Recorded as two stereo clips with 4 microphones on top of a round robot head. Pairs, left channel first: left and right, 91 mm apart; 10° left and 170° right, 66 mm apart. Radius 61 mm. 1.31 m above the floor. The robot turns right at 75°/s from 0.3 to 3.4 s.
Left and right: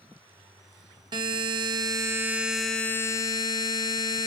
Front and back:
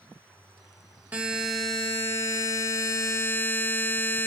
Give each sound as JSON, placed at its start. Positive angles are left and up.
{"t": 1.1, "sound": "a buzzer", "azimuth_deg": -110, "distance_m": 0.7}